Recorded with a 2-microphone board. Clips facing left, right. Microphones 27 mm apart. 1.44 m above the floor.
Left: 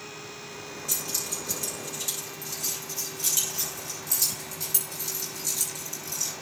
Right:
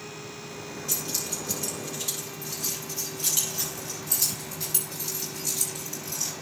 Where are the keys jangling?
30° right (ahead or behind), 9.5 m; by 6.3 s 25° right (ahead or behind), 6 m.